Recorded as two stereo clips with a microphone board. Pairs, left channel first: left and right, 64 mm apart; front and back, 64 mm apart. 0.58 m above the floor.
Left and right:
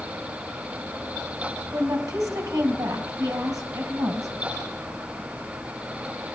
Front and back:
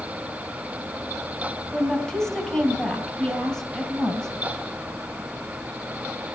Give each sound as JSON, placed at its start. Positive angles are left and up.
{"t": 1.7, "sound": "a woman speaking", "azimuth_deg": -75, "distance_m": 2.5}